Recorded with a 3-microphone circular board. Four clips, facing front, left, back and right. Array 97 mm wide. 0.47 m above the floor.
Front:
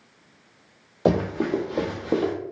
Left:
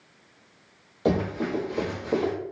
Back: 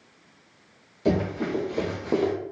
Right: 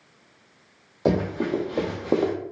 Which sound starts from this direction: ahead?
Running footsteps, at 1.1 s.